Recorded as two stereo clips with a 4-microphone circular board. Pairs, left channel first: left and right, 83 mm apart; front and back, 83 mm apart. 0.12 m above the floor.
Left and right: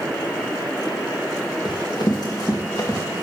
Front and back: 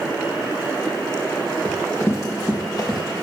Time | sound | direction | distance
1.6 | running footsteps | 65° left | 1.6 m